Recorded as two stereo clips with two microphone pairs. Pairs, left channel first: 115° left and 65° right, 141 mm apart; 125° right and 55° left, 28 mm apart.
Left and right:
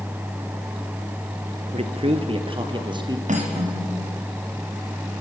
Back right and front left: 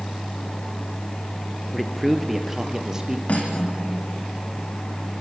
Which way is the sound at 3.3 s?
90° right.